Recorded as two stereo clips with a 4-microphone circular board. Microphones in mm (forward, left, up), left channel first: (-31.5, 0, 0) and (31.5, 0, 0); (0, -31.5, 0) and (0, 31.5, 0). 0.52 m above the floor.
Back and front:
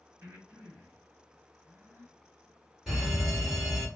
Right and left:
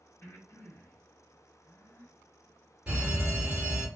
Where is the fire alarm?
80° left, 1.8 m.